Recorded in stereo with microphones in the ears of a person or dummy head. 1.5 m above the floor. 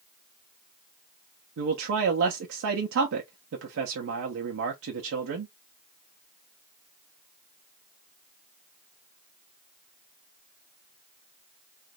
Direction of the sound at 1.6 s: 80° right.